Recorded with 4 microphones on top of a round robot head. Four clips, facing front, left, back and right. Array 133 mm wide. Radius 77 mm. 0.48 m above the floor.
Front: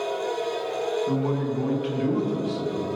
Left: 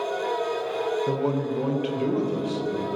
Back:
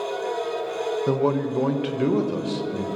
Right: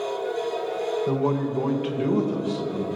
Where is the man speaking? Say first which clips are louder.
Right 1 dB, back 3 dB; 175° left, 1.5 m.